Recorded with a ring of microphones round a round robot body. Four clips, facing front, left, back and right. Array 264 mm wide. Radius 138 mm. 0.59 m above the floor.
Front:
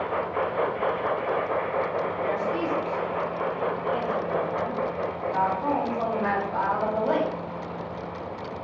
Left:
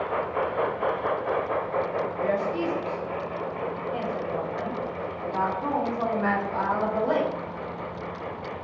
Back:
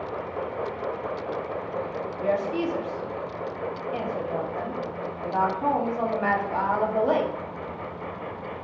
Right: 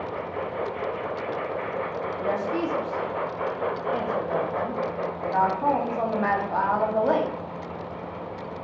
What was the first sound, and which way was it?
A woman speaking, 115° right.